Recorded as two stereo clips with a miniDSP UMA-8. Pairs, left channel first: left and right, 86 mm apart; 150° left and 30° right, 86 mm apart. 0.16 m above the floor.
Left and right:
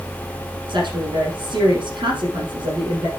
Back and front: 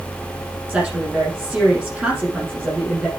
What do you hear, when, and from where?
0.7 s a woman speaking: 110° right, 5.5 m